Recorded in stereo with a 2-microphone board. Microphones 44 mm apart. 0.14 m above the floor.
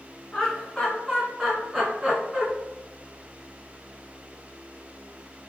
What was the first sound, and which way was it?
Laughter, 15° left (ahead or behind).